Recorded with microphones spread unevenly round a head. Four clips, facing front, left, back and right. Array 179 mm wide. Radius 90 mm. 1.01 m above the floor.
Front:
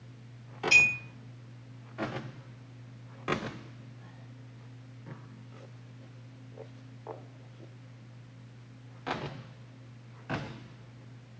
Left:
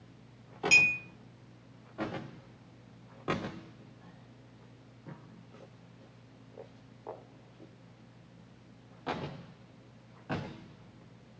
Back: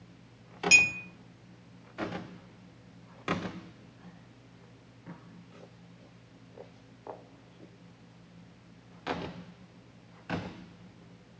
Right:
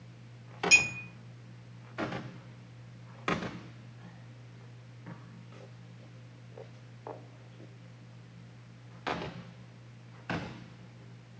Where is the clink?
155° left, 0.9 m.